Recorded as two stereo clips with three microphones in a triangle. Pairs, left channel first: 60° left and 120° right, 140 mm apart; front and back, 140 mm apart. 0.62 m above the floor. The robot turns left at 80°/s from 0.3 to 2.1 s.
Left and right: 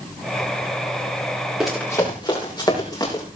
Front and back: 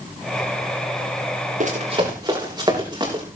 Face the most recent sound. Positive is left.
turn(degrees=120)